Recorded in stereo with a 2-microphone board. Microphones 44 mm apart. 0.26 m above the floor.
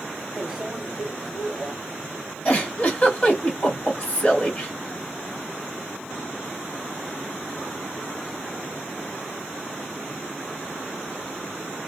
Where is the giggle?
25° left (ahead or behind), 1.7 m.